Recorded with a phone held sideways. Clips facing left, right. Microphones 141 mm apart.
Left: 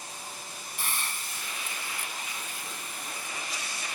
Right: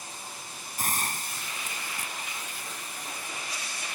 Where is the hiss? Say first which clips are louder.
Right 5 dB; 45° right (ahead or behind).